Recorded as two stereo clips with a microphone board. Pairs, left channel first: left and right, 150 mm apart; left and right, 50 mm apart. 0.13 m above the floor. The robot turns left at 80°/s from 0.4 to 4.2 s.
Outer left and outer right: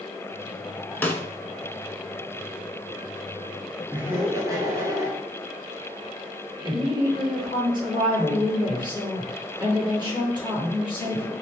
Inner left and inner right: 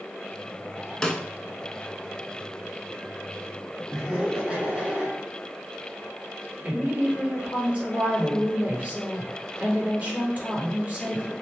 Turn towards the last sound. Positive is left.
turn(degrees=-30)  # may be behind; listen again after turning